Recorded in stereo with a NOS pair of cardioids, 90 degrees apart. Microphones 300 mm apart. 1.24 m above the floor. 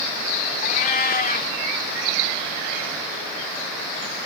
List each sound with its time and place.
0.6 s a cat meowing: 30° left